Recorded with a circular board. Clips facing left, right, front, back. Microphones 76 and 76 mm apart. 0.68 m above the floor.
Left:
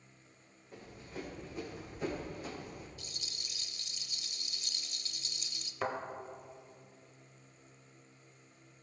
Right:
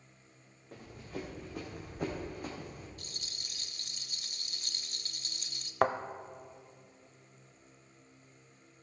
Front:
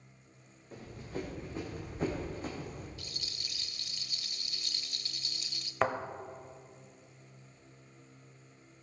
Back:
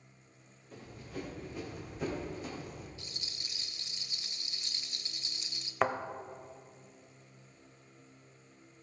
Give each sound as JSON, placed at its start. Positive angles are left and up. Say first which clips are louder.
{"t": 0.7, "sound": "running footsteps", "louder": "right 3 dB, front 3 dB", "azimuth_deg": -60, "distance_m": 4.0}
{"t": 3.0, "sound": "a rattle", "louder": "even, front 1 dB", "azimuth_deg": -115, "distance_m": 0.6}
{"t": 5.8, "sound": "a thud", "louder": "right 8 dB, even", "azimuth_deg": -90, "distance_m": 0.6}